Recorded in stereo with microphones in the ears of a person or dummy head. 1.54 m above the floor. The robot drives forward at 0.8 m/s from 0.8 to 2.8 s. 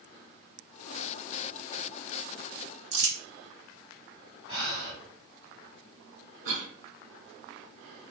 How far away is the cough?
About 0.6 m.